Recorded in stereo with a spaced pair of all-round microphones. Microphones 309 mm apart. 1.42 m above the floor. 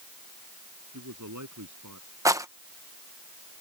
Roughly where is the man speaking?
Right.